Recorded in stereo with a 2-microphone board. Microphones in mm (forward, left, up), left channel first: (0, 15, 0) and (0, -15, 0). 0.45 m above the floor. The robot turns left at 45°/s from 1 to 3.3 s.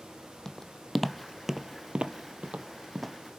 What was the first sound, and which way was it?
Footsteps, 15° left (ahead or behind).